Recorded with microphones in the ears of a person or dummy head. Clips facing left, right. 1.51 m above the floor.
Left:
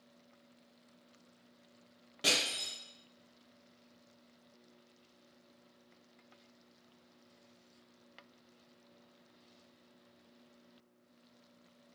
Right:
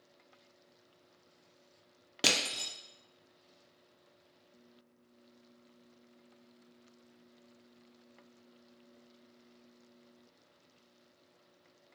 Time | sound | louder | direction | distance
2.2 | crushing | right 2 dB | 80° right | 0.6 m